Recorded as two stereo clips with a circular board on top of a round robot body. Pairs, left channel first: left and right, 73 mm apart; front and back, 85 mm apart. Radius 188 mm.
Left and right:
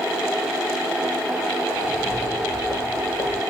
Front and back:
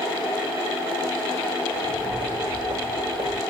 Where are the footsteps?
165° left, 2 m; by 3.4 s 140° left, 2 m.